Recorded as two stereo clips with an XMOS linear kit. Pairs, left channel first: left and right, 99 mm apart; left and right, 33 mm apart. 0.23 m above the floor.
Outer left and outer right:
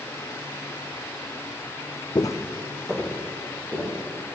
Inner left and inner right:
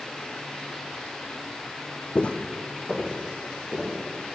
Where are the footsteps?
50° left (ahead or behind), 0.6 m; by 4.4 s 20° right (ahead or behind), 2.5 m.